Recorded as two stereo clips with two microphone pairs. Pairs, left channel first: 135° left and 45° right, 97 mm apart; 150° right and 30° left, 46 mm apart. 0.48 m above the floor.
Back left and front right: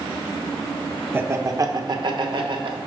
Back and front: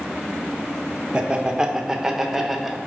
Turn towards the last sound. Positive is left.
turn(degrees=-60)